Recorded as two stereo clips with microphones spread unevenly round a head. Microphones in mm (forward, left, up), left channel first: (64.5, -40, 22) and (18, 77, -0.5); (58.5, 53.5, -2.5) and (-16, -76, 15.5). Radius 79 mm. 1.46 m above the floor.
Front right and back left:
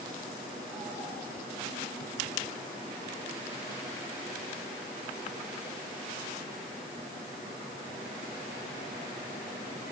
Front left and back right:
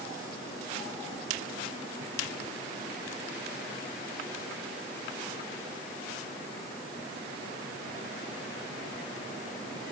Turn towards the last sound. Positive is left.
No sound to turn to.